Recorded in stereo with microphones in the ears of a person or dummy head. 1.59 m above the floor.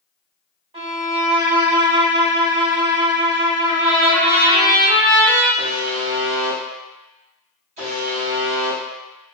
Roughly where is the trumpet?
Right.